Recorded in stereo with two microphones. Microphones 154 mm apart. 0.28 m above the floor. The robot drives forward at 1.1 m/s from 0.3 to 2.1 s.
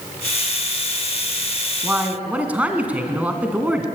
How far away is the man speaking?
About 2.5 m.